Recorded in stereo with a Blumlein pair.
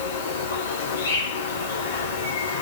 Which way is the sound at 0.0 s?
65° left.